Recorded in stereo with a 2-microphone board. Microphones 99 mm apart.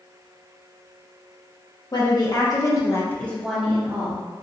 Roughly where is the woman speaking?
Left.